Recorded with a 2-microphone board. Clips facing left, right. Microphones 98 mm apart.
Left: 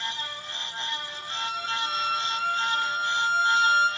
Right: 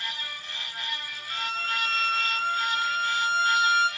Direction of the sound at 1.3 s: 5° left (ahead or behind).